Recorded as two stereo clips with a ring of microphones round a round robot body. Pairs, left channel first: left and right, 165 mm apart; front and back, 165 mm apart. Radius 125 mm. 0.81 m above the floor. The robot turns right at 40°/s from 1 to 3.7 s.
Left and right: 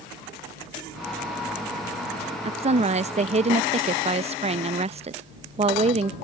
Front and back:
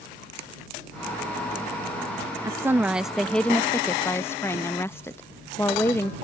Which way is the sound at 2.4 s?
120° right.